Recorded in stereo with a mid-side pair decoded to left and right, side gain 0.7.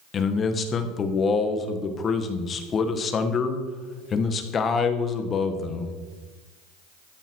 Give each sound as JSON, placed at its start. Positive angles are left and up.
{"t": 0.1, "sound": "a man speaking", "azimuth_deg": 35, "distance_m": 1.8}